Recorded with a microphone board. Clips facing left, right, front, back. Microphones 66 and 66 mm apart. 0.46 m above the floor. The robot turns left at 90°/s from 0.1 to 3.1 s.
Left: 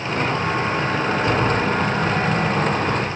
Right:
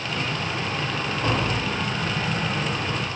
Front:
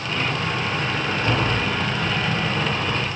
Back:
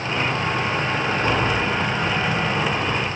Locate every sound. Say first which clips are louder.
1.2 s tapping: left 4 dB, back 1 dB; 130° right, 9.5 m; by 1.6 s 165° right, 9.5 m